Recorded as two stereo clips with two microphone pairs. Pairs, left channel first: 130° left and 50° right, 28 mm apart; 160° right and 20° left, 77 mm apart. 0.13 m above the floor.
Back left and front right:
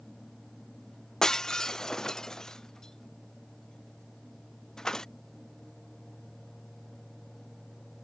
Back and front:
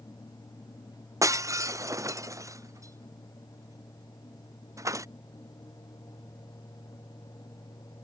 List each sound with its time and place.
1.2 s breaking glass: 70° left